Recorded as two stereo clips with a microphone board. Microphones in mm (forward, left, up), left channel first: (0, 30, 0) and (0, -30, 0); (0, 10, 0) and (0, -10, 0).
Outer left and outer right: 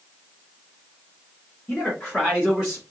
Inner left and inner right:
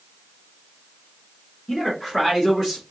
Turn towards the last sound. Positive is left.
turn(degrees=-15)  # may be behind; listen again after turning